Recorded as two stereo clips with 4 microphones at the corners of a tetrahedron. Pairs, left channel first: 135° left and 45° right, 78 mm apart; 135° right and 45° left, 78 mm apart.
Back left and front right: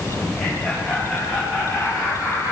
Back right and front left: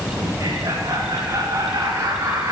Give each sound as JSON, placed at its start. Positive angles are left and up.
{"t": 0.2, "sound": "laughter", "azimuth_deg": 75, "distance_m": 7.5}